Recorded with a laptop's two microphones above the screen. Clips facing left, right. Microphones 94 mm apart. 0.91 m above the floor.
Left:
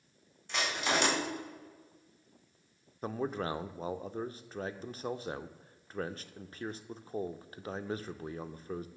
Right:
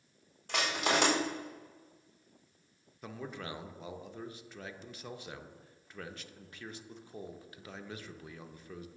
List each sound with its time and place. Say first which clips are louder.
0.5 s crushing: right 1 dB; 60° right (ahead or behind), 3.5 m
3.0 s a man speaking: left 8 dB; 40° left (ahead or behind), 0.5 m